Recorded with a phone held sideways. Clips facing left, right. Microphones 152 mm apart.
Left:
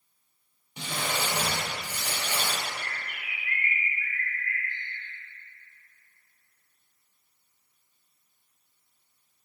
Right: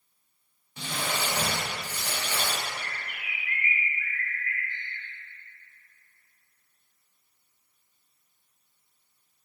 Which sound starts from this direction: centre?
Crumpling, at 0.8 s.